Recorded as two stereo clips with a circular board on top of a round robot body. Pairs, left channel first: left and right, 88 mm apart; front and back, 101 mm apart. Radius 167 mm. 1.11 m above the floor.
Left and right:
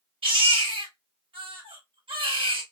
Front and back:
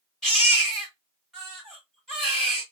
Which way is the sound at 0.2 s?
85° right.